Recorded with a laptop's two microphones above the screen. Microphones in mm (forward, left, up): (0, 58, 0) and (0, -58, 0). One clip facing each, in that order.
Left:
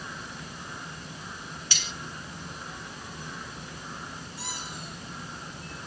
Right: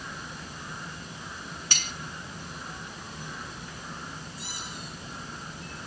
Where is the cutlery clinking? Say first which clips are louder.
Right 3 dB; 50° right (ahead or behind), 0.8 m.